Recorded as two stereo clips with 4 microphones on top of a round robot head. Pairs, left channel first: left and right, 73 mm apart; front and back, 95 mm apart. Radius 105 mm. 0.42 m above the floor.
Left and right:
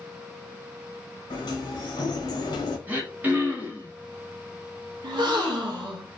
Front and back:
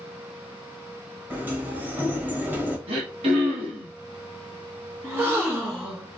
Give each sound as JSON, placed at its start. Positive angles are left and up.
{"t": 1.3, "sound": "a sliding door", "azimuth_deg": 105, "distance_m": 1.0}
{"t": 2.9, "sound": "throat clearing", "azimuth_deg": -155, "distance_m": 1.0}
{"t": 5.0, "sound": "a gasp", "azimuth_deg": -105, "distance_m": 0.6}